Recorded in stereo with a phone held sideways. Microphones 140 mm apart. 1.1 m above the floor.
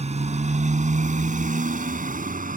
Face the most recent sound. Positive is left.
turn(degrees=-75)  # may be behind; listen again after turning